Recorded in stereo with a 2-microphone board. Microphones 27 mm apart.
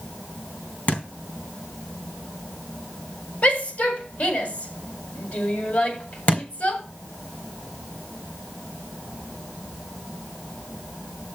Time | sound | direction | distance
0.9 | a thud | 75° left (ahead or behind) | 3.5 m
3.4 | a shout | 65° left (ahead or behind) | 7.5 m
6.3 | a thud | 60° left (ahead or behind) | 3.5 m